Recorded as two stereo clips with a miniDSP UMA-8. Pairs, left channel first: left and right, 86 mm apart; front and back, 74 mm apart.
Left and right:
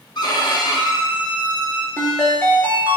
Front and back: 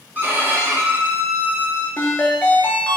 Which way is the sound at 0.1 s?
120° left.